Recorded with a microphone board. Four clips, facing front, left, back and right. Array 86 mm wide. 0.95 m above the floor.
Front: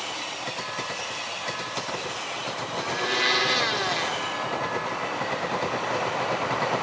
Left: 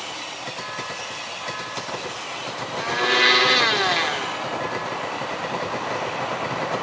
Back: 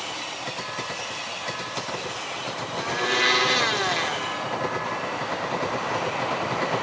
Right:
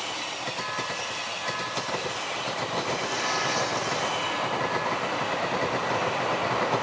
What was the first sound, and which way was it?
A blender, 100° left.